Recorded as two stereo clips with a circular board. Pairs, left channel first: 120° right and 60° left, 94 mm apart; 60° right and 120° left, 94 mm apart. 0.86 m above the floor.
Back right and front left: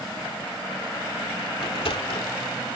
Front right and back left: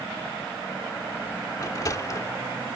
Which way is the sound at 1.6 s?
110° right.